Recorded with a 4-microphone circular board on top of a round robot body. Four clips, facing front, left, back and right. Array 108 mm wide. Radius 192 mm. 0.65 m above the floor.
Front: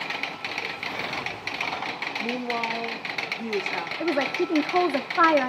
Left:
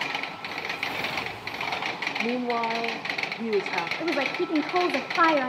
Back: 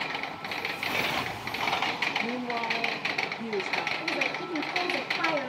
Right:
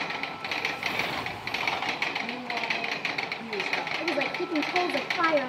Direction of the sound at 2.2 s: 75° left.